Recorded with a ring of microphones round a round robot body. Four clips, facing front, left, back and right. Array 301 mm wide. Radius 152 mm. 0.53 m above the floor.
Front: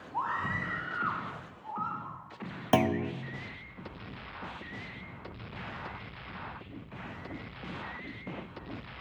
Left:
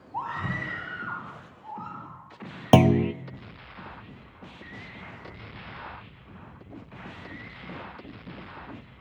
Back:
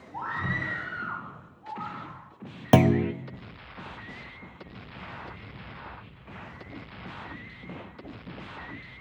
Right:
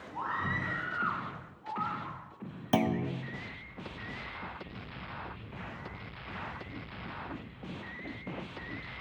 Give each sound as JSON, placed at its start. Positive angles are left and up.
{"t": 0.1, "sound": "a scream", "azimuth_deg": 120, "distance_m": 3.0}
{"t": 2.7, "sound": "a clunk", "azimuth_deg": 120, "distance_m": 0.5}